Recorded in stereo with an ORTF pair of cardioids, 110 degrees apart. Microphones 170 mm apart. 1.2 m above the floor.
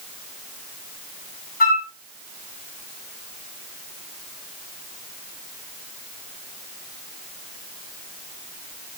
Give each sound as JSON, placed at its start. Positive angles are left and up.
{"t": 1.6, "sound": "a flute", "azimuth_deg": 65, "distance_m": 2.5}